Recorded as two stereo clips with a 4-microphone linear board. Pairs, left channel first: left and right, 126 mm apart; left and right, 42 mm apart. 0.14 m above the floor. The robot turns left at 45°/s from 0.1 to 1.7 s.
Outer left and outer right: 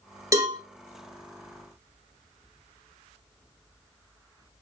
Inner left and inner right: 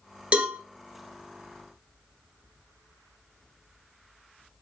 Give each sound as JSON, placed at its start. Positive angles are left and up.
{"t": 0.3, "sound": "a cowbell", "side_deg": -25, "distance_m": 1.1}